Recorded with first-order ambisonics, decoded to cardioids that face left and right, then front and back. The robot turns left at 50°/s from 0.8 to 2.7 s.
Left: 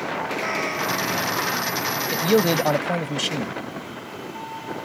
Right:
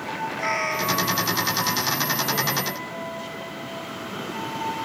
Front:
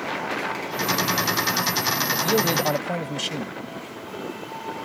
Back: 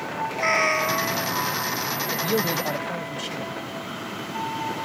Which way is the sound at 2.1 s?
95° left.